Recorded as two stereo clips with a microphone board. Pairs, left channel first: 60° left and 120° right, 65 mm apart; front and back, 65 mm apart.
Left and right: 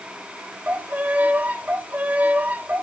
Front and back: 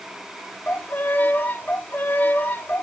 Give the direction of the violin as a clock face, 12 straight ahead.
2 o'clock.